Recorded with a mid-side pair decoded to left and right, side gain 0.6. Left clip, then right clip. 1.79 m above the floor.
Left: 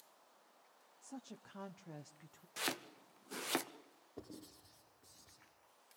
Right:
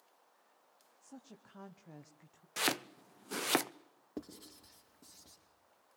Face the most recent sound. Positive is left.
turn(degrees=-70)